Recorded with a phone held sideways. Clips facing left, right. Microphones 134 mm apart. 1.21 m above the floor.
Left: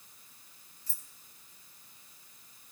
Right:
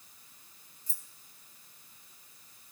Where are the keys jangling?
65° left (ahead or behind), 2 m.